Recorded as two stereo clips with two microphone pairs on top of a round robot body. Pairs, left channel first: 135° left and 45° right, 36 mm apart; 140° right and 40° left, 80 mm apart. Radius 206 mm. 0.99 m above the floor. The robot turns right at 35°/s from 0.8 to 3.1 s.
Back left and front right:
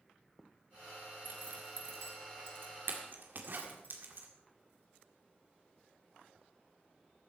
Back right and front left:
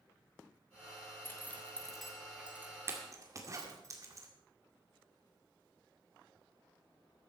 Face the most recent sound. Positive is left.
turn(degrees=-10)